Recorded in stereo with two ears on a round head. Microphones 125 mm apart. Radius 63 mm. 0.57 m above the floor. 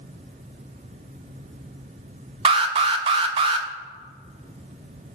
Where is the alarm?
40° right (ahead or behind), 0.6 m.